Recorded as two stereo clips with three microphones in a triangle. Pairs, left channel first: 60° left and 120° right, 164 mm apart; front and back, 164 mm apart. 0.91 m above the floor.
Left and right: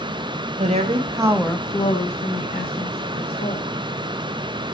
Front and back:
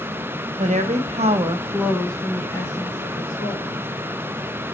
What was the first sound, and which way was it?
A woman speaking, 150° right.